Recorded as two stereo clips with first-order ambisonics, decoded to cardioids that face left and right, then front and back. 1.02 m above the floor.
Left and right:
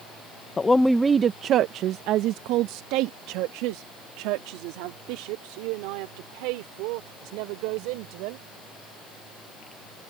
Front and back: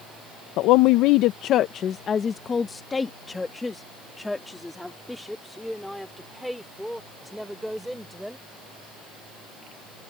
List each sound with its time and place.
0.6 s a woman speaking: 20° left; by 8.5 s 90° right